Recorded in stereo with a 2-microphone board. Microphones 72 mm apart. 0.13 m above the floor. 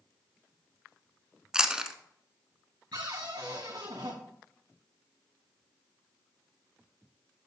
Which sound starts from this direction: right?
A cupboard door, at 2.9 s.